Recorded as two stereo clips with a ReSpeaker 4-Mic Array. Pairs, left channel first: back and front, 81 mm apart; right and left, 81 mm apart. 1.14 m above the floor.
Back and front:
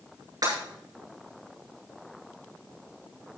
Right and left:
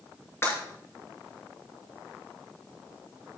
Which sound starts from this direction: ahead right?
Breaking glass, at 0.4 s.